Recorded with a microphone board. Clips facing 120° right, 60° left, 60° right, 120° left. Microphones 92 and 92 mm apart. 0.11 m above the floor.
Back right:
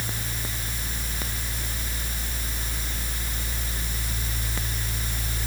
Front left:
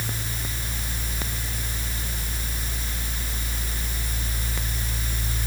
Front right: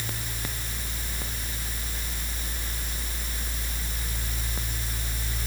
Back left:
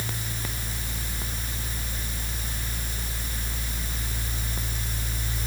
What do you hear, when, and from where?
Only background noise.